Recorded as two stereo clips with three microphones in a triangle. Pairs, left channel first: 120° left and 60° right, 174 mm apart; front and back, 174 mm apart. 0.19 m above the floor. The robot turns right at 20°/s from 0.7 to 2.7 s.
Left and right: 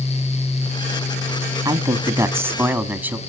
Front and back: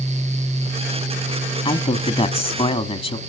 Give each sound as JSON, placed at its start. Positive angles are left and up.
{"t": 1.6, "sound": "a man speaking", "azimuth_deg": -10, "distance_m": 1.2}